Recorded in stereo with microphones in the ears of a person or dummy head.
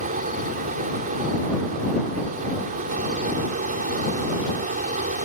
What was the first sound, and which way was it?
A fan, 40° right (ahead or behind).